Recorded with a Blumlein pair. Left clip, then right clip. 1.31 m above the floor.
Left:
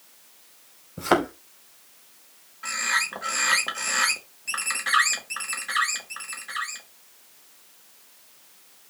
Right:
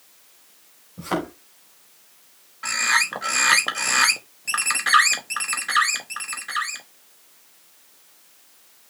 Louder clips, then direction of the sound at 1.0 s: Left 5 dB; 65° left.